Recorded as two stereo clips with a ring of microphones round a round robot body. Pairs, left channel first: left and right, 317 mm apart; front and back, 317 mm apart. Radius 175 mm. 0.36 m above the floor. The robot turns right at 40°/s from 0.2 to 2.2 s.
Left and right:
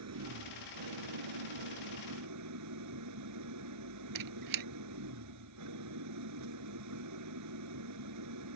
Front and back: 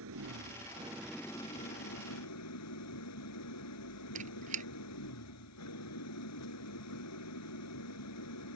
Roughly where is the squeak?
Right.